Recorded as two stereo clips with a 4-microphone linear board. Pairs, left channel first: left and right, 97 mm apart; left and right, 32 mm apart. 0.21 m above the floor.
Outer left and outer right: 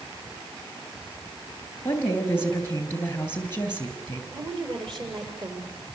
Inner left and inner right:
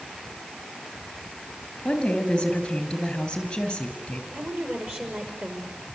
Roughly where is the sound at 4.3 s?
Right.